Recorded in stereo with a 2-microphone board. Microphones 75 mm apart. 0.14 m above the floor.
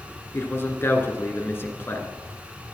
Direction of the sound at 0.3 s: 30° left (ahead or behind).